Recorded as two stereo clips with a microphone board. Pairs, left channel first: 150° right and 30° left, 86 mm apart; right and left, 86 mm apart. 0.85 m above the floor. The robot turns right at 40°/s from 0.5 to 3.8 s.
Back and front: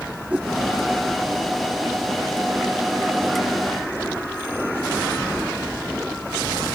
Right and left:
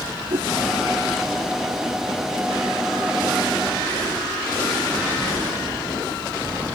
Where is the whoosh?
105° left.